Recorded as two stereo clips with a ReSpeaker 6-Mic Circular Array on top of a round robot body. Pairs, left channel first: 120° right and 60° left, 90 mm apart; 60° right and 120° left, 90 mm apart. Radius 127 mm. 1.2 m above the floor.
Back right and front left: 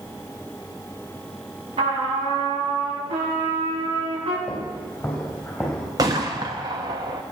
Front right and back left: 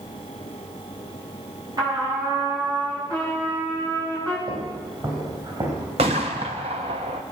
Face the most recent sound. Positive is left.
turn(degrees=110)